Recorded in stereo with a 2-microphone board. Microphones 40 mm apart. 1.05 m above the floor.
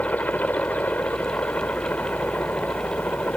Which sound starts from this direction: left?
A helicopter, at 0.0 s.